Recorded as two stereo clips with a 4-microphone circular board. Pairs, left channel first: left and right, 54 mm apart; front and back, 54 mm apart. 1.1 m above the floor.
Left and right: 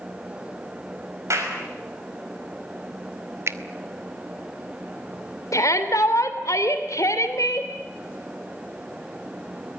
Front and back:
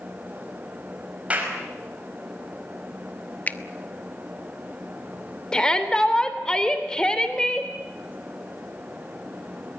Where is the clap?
115° right, 6 m.